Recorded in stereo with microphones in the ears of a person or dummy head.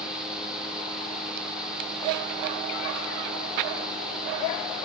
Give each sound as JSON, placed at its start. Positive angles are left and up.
{"t": 0.0, "sound": "a fan", "side_deg": -5, "distance_m": 2.0}